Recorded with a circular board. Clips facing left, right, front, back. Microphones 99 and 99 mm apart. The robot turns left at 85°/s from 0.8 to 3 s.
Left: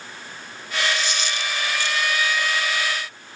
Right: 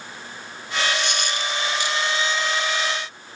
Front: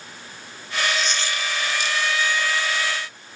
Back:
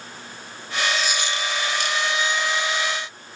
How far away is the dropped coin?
About 1.1 m.